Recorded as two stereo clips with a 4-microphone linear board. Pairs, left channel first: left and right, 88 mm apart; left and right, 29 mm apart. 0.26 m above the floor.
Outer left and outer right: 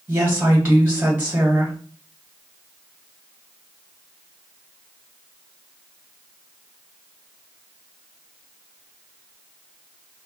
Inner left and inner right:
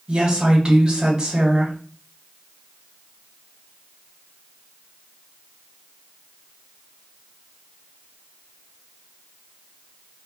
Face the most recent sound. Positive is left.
turn(degrees=-25)  # may be behind; listen again after turning